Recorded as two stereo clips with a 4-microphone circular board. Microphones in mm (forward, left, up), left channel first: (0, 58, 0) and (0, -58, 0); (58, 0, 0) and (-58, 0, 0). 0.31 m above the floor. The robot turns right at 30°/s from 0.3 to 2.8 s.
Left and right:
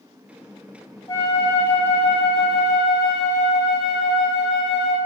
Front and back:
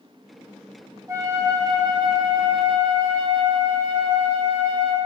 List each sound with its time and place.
1.1 s a flute: 135° left, 1.2 m; by 5.0 s 175° right, 1.2 m